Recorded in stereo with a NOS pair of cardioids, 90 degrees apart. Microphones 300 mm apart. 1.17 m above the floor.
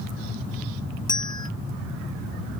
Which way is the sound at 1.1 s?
15° left.